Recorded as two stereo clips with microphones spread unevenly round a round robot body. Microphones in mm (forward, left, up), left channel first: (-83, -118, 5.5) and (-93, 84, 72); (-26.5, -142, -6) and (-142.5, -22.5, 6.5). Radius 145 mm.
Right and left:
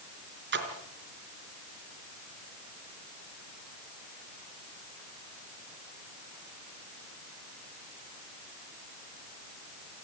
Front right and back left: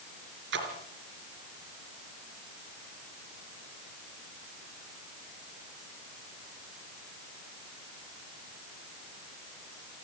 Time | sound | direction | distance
0.5 | a splash | 125° left | 4 m